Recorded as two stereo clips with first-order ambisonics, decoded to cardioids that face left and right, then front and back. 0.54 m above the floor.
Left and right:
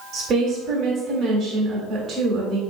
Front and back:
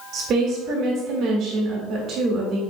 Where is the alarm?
I don't hear an alarm.